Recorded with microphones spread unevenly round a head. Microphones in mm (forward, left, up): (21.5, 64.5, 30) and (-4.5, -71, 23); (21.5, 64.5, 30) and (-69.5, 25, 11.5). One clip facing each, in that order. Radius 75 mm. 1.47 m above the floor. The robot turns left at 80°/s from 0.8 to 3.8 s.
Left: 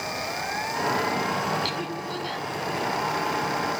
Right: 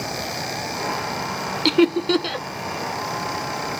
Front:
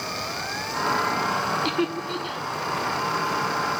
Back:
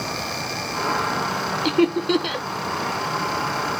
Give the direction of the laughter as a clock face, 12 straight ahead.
3 o'clock.